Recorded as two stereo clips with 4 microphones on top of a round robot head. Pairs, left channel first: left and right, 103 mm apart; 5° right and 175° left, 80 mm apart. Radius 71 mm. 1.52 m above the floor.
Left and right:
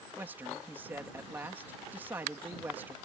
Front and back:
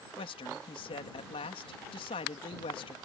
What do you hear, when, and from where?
0.2 s a man speaking: 15° right